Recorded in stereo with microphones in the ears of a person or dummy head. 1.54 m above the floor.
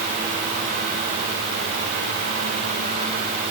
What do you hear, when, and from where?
Only background noise.